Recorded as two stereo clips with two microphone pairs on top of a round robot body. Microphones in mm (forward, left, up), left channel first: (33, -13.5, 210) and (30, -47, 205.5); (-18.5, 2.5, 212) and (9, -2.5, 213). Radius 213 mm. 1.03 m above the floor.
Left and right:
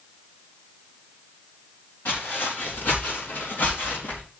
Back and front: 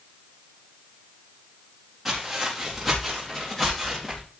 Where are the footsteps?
75° left, 4.5 m; by 4.2 s 90° left, 4.5 m.